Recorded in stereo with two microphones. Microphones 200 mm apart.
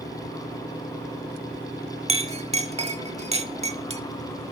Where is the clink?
30° right (ahead or behind), 0.7 m.